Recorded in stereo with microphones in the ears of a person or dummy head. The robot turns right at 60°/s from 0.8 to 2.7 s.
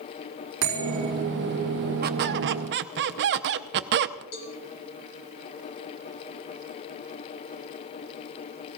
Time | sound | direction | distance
0.6 | a bell | 75° right (ahead or behind) | 5 m
2.0 | a squeak | 120° right | 0.7 m
4.3 | a cowbell | 55° left (ahead or behind) | 3 m